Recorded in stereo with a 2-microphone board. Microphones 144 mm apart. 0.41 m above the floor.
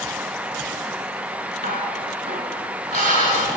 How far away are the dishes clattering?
About 3 m.